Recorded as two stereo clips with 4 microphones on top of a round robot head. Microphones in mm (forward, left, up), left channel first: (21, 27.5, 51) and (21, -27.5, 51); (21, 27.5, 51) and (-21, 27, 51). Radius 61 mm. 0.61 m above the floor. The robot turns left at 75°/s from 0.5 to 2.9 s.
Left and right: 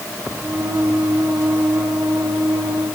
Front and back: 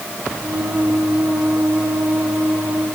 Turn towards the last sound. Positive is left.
No sound to turn to.